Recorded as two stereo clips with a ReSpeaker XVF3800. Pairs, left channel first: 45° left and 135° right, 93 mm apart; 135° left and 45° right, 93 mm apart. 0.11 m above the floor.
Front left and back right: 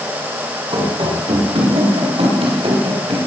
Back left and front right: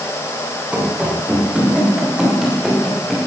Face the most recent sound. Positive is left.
turn(degrees=-135)